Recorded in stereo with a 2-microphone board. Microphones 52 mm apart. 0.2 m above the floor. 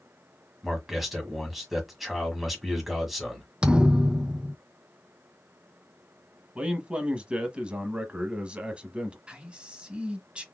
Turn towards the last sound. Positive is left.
turn(degrees=-25)  # may be behind; listen again after turning